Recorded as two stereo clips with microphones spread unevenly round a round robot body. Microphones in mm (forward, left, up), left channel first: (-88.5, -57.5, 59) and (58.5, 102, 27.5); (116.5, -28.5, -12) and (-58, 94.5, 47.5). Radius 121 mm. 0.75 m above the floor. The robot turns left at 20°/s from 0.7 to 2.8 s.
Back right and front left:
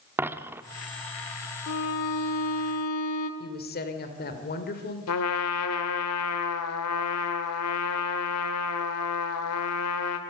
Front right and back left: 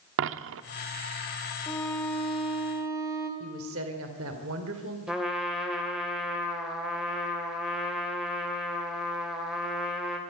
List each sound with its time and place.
0.2 s a dropped coin: 130° left, 0.7 m
1.7 s a violin: 110° right, 1.9 m; by 3.3 s 135° right, 1.9 m
3.4 s a woman speaking: straight behind, 3 m
5.1 s a trumpet: 125° right, 2.0 m